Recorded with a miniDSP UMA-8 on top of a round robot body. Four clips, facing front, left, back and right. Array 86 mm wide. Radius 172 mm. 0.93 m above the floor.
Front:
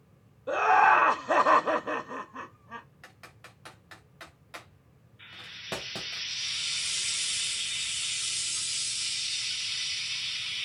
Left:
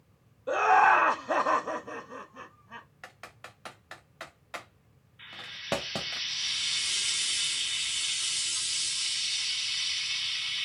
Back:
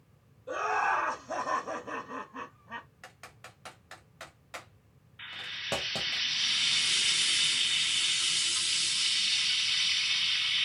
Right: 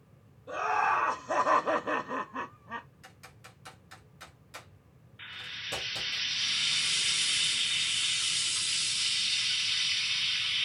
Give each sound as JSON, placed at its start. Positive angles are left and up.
{"t": 0.5, "sound": "laughter", "azimuth_deg": 45, "distance_m": 0.8}
{"t": 3.0, "sound": "typing on a keyboard", "azimuth_deg": 95, "distance_m": 0.5}
{"t": 5.2, "sound": "frying", "azimuth_deg": -150, "distance_m": 0.7}